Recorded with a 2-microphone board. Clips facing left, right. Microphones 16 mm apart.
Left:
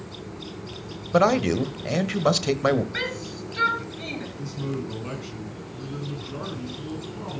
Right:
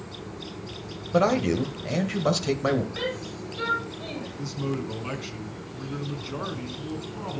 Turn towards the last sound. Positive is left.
turn(degrees=-20)  # may be behind; listen again after turning